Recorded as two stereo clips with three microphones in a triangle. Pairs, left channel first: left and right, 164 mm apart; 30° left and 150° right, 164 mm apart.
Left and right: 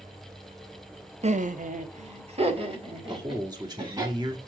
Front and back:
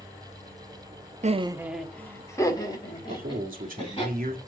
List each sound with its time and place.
1.2 s laughter: 125° right, 0.7 m; by 4.0 s 30° right, 4 m
3.0 s a man speaking: 150° right, 2.0 m